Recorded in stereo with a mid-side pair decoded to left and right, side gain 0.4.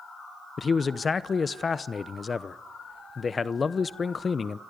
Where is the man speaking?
35° left, 0.8 m.